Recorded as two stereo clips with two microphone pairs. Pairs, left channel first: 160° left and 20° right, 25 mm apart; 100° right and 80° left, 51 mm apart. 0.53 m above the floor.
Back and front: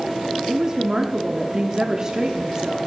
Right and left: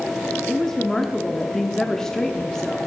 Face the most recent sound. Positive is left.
turn(degrees=-40)